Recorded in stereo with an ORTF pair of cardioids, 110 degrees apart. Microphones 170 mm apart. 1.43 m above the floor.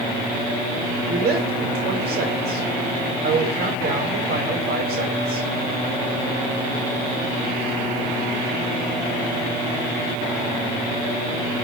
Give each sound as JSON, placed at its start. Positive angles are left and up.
{"t": 1.1, "sound": "a woman speaking", "azimuth_deg": -60, "distance_m": 6.5}